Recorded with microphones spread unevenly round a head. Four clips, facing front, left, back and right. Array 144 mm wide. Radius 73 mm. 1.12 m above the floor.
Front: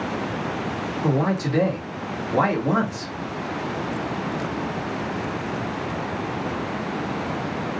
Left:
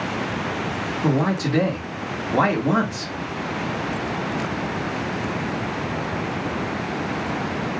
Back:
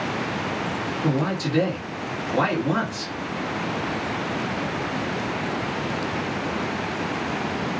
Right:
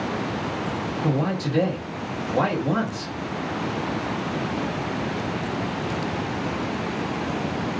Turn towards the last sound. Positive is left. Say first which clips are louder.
# left 4 dB, front 2 dB
turn(degrees=75)